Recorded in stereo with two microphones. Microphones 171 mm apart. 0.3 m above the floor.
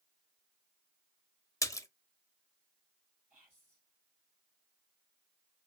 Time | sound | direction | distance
1.6 | a splash | 20° left (ahead or behind) | 0.5 m
3.3 | whispering | 5° left (ahead or behind) | 1.6 m